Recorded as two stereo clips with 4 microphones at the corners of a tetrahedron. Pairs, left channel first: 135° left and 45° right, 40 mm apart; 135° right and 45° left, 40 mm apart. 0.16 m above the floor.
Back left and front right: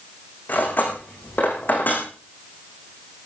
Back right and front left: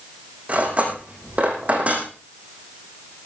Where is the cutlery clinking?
95° left, 5.5 m.